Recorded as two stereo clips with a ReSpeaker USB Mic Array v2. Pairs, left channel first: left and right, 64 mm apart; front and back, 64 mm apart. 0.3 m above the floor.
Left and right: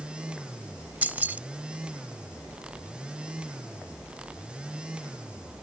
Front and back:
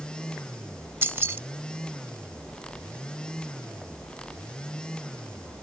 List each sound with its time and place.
1.0 s keys jangling: 140° right